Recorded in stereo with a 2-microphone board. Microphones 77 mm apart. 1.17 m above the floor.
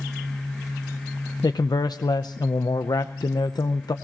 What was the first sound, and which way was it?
A man speaking, 60° left (ahead or behind).